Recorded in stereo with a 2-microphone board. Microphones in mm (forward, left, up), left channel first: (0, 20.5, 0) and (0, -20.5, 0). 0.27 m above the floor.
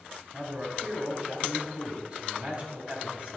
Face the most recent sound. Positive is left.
turn(degrees=-30)  # may be behind; listen again after turning